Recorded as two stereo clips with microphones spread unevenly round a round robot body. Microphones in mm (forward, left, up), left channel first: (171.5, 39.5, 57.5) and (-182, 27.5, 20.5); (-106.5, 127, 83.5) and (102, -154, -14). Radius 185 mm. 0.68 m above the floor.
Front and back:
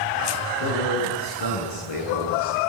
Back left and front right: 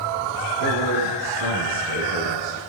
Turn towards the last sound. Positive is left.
turn(degrees=-5)